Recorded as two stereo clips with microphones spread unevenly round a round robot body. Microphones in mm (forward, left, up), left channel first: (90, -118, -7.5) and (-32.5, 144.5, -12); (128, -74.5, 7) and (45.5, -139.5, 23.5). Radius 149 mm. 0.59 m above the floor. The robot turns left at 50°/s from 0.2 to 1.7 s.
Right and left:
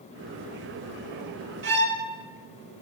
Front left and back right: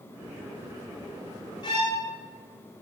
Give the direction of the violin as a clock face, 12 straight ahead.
10 o'clock.